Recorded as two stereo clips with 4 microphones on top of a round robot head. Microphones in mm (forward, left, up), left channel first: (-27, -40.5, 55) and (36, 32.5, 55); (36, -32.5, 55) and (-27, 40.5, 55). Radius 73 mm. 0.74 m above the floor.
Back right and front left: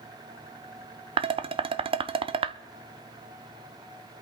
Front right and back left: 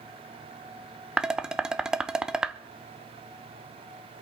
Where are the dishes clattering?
50° left, 0.7 m.